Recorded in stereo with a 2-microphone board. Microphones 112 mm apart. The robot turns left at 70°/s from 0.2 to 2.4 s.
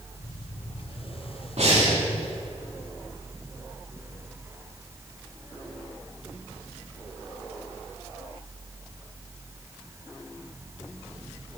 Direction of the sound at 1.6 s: 70° right (ahead or behind).